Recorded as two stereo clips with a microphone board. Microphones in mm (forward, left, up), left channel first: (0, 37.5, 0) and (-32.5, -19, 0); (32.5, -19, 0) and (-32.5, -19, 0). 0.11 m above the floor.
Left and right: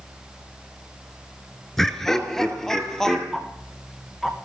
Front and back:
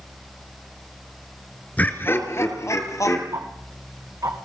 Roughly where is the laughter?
Ahead.